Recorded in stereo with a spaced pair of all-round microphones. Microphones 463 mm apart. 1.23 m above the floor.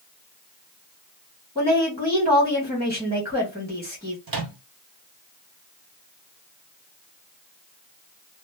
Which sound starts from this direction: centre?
A woman speaking, at 1.6 s.